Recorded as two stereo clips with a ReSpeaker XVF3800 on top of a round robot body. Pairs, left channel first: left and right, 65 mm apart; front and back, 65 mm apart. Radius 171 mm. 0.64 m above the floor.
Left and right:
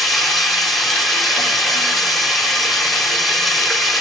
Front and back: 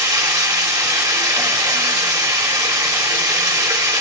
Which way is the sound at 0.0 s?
Straight behind.